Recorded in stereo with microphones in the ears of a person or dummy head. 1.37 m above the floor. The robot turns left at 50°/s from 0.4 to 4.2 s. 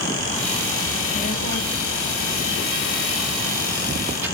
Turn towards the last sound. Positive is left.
turn(degrees=-10)